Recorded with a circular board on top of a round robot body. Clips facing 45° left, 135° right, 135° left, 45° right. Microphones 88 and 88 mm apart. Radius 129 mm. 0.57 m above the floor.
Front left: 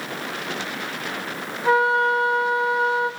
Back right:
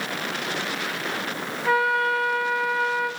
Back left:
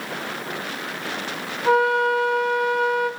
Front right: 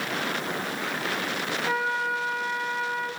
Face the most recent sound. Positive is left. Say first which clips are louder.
# front left 3 dB, back left 11 dB
turn(degrees=105)